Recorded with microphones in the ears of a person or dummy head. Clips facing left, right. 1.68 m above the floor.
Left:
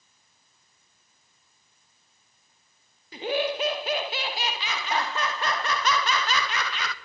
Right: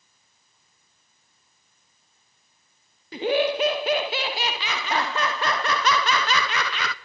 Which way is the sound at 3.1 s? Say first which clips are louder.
Right 5 dB; 45° right (ahead or behind).